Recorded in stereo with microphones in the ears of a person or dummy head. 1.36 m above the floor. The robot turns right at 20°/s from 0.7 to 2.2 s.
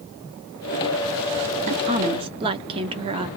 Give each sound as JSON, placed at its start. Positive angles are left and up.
{"t": 1.7, "sound": "a woman speaking", "side_deg": -35, "distance_m": 0.8}